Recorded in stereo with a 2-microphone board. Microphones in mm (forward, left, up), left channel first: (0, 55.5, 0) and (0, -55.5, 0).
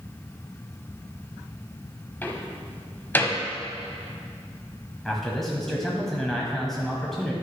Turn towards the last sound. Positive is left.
turn(degrees=5)  # may be behind; listen again after turning